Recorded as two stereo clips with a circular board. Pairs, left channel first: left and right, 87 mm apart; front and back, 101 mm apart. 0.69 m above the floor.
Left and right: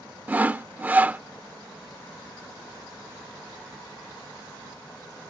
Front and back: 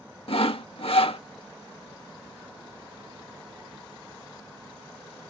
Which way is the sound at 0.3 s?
20° right.